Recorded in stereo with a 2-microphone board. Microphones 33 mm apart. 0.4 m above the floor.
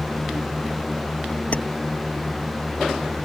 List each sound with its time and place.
1.5 s keys jangling: 50° left (ahead or behind)